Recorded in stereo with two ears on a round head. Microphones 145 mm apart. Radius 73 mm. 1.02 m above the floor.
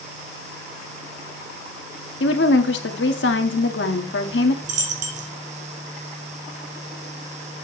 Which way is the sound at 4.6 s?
50° right (ahead or behind).